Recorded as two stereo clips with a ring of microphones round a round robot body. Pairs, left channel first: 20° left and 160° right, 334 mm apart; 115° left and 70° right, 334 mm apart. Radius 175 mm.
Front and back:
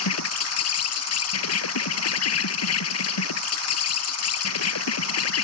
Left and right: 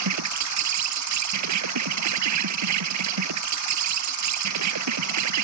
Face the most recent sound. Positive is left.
turn(degrees=-25)